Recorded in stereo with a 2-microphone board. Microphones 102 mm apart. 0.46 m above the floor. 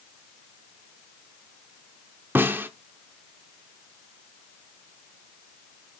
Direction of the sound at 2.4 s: 20° right (ahead or behind).